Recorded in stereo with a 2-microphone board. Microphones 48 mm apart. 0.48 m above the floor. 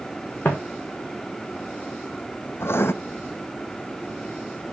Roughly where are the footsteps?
Left.